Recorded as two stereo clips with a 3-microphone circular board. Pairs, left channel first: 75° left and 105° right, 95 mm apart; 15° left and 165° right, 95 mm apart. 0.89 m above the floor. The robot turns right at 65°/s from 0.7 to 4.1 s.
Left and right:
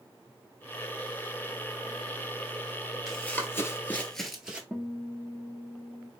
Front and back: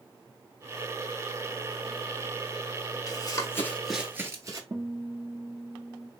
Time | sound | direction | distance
3.1 | running footsteps | 10° right | 1.1 m
4.7 | a guitar | 170° left | 0.8 m